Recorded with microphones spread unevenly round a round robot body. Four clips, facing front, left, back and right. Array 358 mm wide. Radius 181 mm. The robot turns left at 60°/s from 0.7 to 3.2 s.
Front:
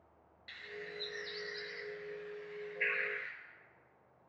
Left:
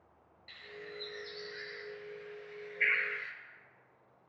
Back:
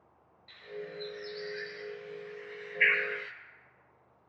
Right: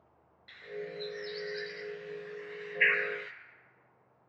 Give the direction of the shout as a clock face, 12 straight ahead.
I don't hear a shout.